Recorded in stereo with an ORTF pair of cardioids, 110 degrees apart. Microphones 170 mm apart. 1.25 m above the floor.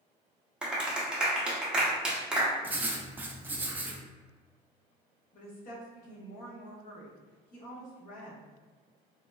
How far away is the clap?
About 0.7 m.